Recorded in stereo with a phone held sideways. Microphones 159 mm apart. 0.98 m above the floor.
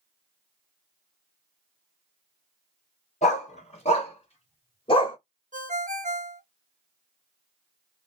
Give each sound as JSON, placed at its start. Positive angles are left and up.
{"t": 3.2, "sound": "a dog barking", "side_deg": 45, "distance_m": 2.0}
{"t": 5.5, "sound": "a ringtone", "side_deg": -55, "distance_m": 0.9}